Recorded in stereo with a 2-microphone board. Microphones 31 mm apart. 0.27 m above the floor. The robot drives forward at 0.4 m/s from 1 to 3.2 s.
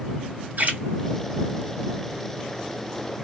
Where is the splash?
50° right (ahead or behind), 1.9 m.